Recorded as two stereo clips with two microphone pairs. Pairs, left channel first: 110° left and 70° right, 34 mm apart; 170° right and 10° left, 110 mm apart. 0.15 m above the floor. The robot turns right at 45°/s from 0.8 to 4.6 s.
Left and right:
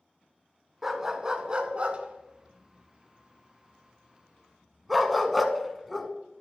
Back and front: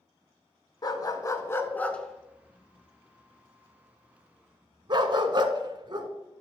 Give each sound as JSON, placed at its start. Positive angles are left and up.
{"t": 0.8, "sound": "a dog barking", "azimuth_deg": -150, "distance_m": 0.6}